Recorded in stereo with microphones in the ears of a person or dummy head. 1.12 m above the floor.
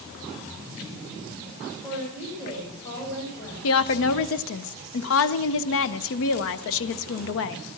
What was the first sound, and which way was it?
A woman speaking, 20° left (ahead or behind).